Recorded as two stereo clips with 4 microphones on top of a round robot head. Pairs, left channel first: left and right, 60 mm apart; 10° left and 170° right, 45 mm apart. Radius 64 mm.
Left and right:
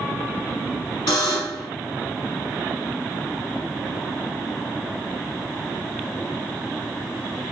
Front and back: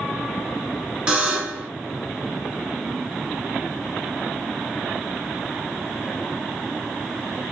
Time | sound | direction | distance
1.1 | a buzzer | 120° left | 1.2 m